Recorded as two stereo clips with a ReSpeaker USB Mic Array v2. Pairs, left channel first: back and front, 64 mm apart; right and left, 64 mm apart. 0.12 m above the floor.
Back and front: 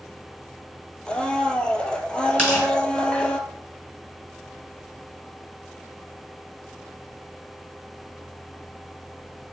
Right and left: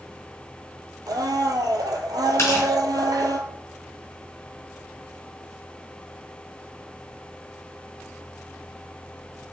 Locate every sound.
1.1 s a blender: 105° left, 0.5 m
2.4 s tearing paper: 105° right, 2.5 m